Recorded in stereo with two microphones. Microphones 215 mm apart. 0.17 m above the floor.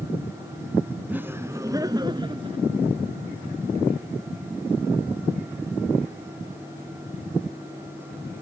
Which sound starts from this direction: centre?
Laughter, at 1.1 s.